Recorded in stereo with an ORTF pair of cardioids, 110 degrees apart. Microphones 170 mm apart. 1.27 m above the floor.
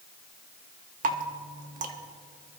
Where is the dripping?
55° right, 1.5 m.